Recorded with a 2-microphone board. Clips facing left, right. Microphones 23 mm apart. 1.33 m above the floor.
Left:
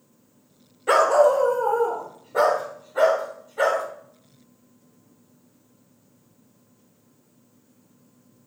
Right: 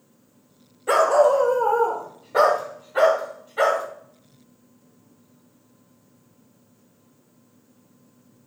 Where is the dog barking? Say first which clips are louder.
Even; 15° left (ahead or behind), 1.2 m; by 3.8 s 80° right, 4 m.